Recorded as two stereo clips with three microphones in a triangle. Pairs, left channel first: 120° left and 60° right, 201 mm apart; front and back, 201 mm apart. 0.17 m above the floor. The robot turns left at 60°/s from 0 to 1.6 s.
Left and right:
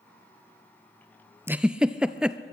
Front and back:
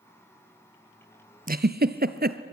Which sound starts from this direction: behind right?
A giggle, at 1.5 s.